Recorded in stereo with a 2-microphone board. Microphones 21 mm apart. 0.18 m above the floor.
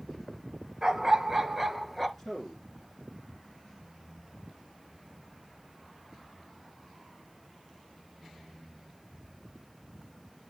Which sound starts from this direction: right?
A dog barking, at 0.8 s.